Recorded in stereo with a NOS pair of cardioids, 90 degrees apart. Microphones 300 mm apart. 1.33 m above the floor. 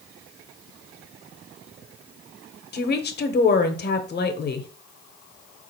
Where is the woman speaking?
35° left, 0.7 m.